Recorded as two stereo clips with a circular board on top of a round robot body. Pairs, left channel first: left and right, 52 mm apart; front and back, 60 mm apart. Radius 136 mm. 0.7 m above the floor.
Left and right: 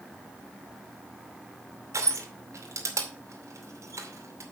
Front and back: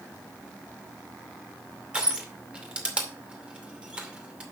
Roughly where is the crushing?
Right.